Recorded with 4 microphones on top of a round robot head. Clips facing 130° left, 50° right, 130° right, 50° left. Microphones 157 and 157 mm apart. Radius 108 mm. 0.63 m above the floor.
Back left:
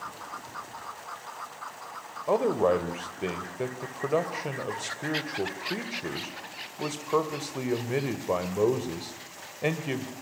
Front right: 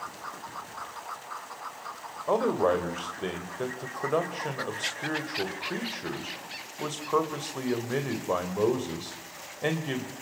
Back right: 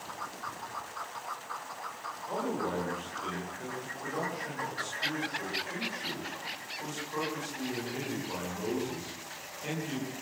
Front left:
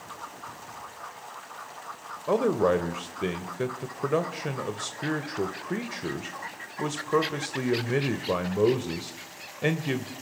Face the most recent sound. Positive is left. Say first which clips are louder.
# back left 1 dB, front left 11 dB
turn(degrees=50)